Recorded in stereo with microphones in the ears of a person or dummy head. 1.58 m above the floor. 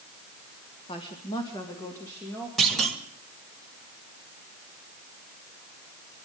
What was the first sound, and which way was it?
A woman speaking, 35° left (ahead or behind).